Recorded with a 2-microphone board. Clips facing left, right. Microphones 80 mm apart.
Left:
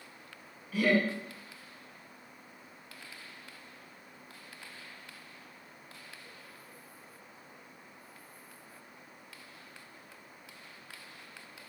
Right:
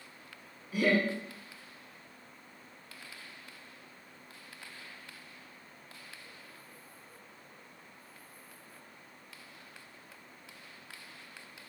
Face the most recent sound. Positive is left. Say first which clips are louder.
# left 1 dB
turn(degrees=-15)  # may be behind; listen again after turning